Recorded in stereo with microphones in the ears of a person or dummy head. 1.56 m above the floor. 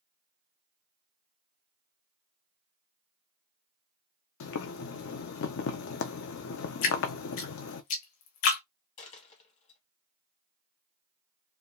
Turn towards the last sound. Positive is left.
turn(degrees=30)  # may be behind; listen again after turning